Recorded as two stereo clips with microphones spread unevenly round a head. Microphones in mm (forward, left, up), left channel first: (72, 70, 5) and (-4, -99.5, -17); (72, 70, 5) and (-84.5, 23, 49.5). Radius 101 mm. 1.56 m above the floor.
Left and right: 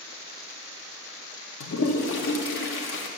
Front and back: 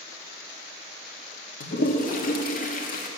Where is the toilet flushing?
45° left, 1.1 m.